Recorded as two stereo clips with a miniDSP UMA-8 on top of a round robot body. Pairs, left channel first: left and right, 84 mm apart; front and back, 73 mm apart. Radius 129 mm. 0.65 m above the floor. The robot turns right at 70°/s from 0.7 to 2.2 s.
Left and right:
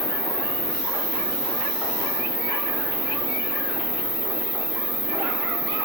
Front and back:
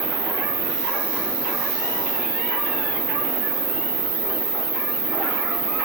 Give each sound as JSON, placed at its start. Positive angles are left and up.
{"t": 0.0, "sound": "an insect", "azimuth_deg": -150, "distance_m": 2.0}